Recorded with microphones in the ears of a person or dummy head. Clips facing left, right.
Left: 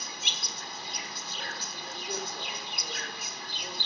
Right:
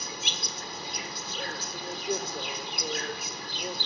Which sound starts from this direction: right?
An insect, at 0.0 s.